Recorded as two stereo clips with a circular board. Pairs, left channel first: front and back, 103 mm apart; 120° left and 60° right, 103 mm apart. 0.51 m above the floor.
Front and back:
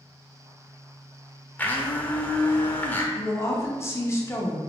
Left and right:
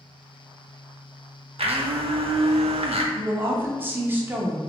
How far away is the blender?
About 0.6 m.